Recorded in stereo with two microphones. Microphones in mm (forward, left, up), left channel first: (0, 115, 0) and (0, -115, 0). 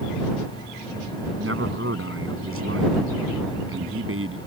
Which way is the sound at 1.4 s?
80° right.